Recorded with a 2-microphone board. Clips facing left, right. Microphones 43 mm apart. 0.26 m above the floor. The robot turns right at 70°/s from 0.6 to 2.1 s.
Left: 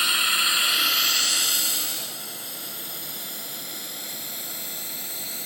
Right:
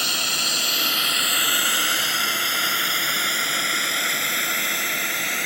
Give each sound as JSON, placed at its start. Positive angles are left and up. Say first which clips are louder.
{"t": 0.0, "sound": "a drone", "louder": "left 2 dB", "side_deg": 15}